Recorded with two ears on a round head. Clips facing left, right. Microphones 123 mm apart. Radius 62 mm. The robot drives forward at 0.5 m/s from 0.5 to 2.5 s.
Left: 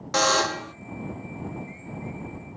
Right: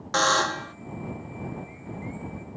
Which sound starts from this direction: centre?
A buzzer, at 0.1 s.